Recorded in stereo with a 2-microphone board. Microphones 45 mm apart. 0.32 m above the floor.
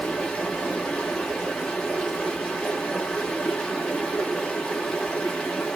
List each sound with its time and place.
0.0 s running water: 20° left (ahead or behind), 1.1 m